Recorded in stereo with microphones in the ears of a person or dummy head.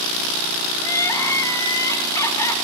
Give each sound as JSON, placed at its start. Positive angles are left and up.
{"t": 0.8, "sound": "crying", "side_deg": 25, "distance_m": 1.4}